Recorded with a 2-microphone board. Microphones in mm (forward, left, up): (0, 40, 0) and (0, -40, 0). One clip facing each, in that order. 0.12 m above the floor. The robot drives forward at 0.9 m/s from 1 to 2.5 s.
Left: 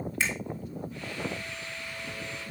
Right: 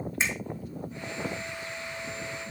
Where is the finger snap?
20° right (ahead or behind), 5.5 m.